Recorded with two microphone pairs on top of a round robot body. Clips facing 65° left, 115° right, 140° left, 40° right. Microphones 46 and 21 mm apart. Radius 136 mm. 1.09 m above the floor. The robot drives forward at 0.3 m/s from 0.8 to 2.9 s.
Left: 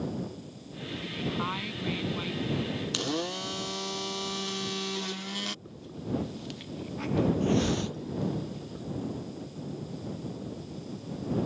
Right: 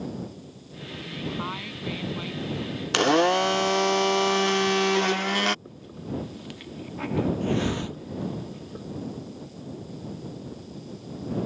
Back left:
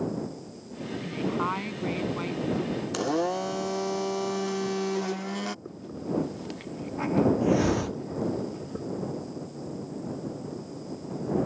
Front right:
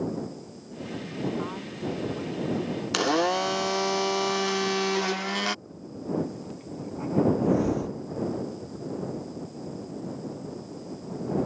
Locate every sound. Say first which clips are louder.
1.0 s a woman speaking: even, back left 3 dB; 155° left
2.9 s a blender: right 16 dB, front right 4 dB; 85° right
5.7 s a hiss: left 1 dB, even; 170° left